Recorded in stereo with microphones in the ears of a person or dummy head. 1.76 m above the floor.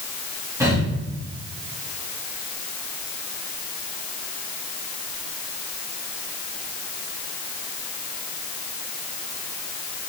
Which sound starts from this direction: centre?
Breathing, at 0.6 s.